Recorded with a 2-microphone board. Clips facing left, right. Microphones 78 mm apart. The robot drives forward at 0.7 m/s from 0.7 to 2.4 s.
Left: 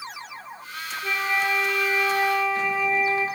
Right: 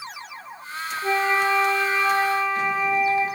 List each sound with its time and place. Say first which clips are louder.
1.0 s a flute: right 4 dB; 45° right (ahead or behind), 1.1 m; by 3.2 s 25° right (ahead or behind), 1.9 m